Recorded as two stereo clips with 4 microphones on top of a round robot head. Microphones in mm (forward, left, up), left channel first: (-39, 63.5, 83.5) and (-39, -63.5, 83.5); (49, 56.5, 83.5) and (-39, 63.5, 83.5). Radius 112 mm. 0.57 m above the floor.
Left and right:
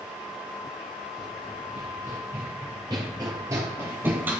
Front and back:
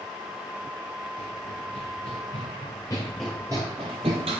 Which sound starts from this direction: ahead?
Running footsteps, at 1.2 s.